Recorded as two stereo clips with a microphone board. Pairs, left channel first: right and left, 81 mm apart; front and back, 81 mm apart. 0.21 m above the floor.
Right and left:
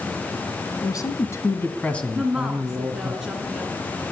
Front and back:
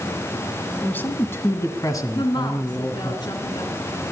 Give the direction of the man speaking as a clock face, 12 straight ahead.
2 o'clock.